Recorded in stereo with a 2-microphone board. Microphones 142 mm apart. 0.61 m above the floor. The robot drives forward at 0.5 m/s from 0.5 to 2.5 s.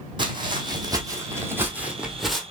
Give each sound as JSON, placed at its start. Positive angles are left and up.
{"t": 0.2, "sound": "footsteps", "side_deg": -35, "distance_m": 1.6}